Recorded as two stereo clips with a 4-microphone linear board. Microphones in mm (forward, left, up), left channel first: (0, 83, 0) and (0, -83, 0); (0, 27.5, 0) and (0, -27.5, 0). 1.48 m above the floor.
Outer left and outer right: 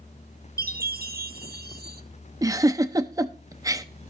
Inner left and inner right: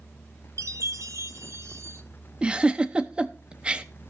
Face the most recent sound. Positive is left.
turn(degrees=-20)  # may be behind; listen again after turning